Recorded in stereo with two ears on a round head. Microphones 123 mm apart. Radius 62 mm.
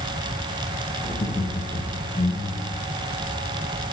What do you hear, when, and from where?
1.0 s laughter: 25° left (ahead or behind), 2.5 m; by 2.8 s 15° left (ahead or behind), 3.5 m